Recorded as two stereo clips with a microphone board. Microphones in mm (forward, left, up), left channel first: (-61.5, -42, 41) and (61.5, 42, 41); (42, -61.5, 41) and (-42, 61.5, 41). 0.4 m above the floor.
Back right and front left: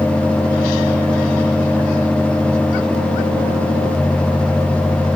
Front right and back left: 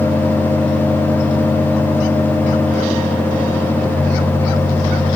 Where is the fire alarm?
I don't hear a fire alarm.